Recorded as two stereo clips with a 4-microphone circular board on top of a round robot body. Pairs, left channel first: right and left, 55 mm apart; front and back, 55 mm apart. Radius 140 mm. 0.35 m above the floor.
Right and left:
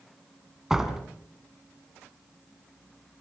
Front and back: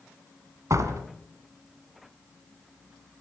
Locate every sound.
0.7 s a door slam: 170° left, 3 m